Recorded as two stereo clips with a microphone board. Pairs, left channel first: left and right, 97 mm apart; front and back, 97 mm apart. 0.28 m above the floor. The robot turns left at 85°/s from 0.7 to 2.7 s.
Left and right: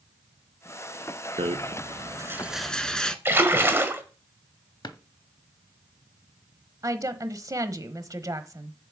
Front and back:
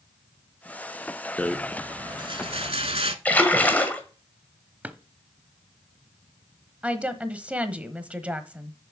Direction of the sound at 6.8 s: 110° right.